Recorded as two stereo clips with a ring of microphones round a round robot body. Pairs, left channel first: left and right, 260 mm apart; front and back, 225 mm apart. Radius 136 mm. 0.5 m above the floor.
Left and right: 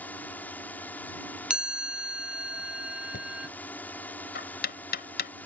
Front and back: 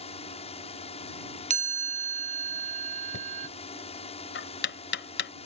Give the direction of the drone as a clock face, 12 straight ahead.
12 o'clock.